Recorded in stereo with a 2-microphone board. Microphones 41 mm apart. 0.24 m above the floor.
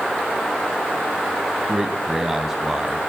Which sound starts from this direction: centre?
A man speaking, at 1.7 s.